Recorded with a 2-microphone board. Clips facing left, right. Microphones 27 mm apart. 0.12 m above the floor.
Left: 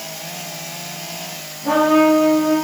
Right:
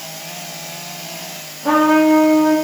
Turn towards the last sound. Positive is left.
turn(degrees=-25)  # may be behind; listen again after turning